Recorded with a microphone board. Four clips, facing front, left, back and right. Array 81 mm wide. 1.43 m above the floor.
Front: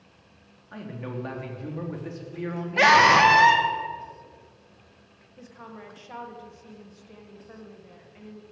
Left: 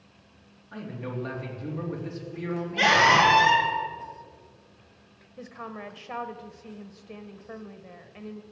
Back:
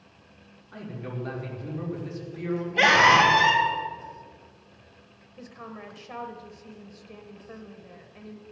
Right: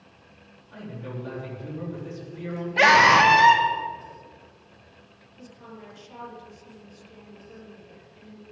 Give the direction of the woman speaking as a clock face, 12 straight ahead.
9 o'clock.